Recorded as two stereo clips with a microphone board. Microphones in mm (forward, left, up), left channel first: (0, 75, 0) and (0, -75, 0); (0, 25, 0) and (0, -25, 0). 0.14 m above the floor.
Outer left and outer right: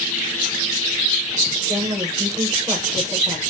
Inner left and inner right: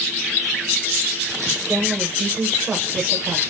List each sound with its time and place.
1.7 s a woman speaking: 25° right (ahead or behind), 7.5 m